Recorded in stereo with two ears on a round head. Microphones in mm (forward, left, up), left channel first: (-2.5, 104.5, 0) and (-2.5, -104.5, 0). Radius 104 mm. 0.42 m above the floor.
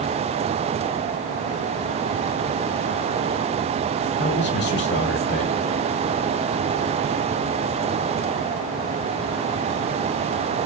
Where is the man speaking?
50° left (ahead or behind), 1.8 m.